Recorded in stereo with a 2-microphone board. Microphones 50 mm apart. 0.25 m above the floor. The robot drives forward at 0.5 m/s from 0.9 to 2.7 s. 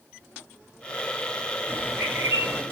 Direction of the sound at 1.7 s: 45° right (ahead or behind).